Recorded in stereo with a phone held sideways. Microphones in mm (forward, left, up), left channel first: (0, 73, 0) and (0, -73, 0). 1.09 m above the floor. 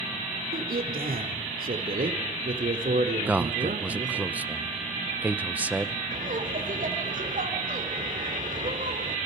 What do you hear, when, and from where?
0.5 s a man speaking: 85° right, 3 m; by 4.3 s 55° right (ahead or behind), 3 m
3.3 s a man speaking: 10° right (ahead or behind), 0.8 m
6.1 s laughter: 65° right (ahead or behind), 3.5 m